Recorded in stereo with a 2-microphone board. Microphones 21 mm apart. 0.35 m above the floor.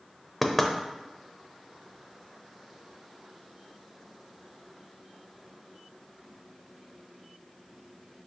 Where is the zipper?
No zipper in this recording.